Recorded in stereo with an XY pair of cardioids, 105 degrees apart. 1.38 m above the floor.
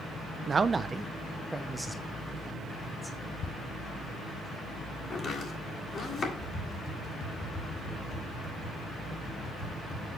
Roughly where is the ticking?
Ahead left.